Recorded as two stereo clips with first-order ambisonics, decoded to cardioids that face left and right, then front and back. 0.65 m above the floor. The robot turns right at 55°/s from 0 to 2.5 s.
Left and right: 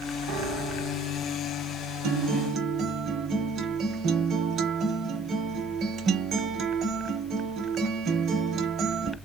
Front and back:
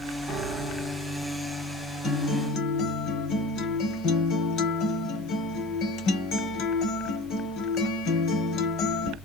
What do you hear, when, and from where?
0.3 s a piano: 95° right, 1.2 m; by 1.3 s 40° right, 1.2 m
2.0 s a guitar: 60° right, 0.9 m; by 9.2 s 35° right, 0.9 m